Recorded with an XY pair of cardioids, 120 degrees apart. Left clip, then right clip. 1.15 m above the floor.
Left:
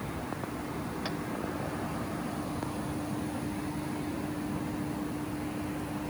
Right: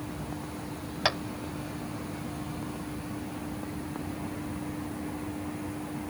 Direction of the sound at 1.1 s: 65° right.